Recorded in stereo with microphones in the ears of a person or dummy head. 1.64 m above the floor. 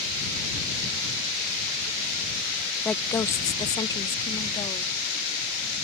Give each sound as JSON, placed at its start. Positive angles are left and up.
{"t": 2.9, "sound": "a woman speaking", "side_deg": 5}